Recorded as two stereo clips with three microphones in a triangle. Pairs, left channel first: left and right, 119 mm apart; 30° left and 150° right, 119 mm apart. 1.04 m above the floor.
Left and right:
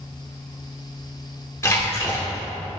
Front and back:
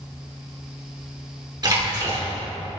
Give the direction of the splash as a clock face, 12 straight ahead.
7 o'clock.